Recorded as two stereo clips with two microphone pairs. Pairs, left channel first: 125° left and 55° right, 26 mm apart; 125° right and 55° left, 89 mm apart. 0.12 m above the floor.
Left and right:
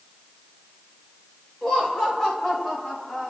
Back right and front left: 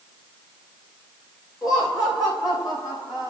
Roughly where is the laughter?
Behind.